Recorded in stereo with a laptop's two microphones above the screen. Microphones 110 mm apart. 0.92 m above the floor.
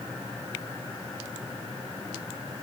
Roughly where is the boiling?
I don't hear boiling.